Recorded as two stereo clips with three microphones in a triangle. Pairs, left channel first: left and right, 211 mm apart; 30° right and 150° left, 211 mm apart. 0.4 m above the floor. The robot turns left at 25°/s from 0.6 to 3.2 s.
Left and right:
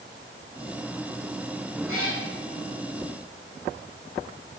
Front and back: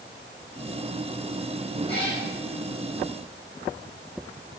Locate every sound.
1.9 s a cat meowing: 95° right, 6 m; by 2.2 s 100° right, 6 m